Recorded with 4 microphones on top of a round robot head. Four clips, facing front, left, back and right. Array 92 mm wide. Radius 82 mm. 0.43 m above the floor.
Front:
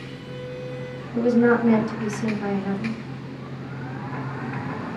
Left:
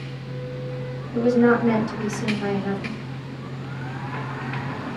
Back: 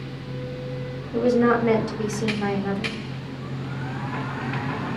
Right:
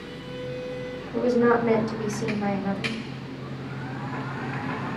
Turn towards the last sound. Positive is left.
turn(degrees=180)